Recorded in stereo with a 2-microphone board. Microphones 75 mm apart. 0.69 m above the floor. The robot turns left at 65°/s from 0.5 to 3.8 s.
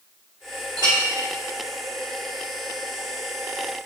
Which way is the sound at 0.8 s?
80° right.